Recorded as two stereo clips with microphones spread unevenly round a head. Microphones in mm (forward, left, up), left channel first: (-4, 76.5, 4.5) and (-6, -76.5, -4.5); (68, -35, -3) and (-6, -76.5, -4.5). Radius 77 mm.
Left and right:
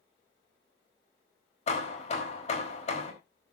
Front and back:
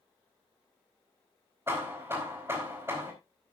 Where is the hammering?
135° left, 4.5 m.